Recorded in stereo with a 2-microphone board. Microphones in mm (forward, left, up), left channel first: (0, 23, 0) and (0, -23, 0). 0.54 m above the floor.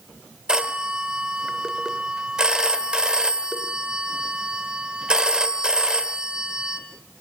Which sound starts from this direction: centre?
A phone ringing, at 0.5 s.